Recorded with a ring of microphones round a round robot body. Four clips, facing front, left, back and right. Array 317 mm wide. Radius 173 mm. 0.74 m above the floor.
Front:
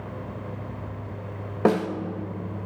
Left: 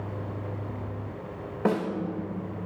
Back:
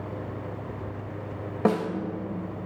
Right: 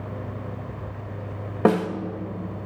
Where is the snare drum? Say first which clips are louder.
Right 6 dB, front 3 dB; 80° right, 1.2 m.